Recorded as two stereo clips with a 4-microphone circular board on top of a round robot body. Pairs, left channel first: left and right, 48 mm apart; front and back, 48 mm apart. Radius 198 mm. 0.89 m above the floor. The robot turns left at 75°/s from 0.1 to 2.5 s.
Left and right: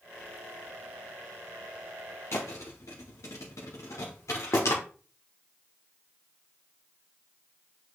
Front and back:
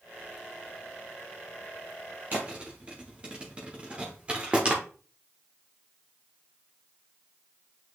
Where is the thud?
130° left, 0.8 m; by 4.8 s 115° left, 0.8 m.